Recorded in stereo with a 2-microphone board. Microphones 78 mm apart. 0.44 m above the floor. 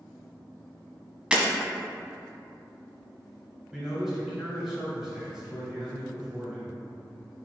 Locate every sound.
1.3 s breaking glass: 15° right (ahead or behind), 0.7 m
3.7 s a man speaking: 5° right (ahead or behind), 1.9 m